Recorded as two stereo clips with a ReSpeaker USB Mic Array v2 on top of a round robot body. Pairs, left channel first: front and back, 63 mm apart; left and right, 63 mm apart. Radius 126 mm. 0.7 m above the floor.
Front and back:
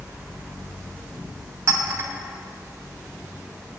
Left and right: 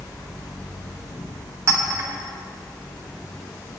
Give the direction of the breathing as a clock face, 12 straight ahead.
I don't hear breathing.